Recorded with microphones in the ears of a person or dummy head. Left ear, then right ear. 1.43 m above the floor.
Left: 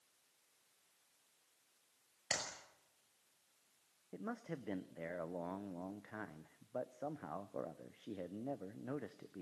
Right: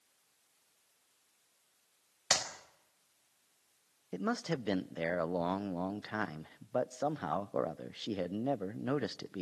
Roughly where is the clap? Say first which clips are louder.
Right 9 dB; right.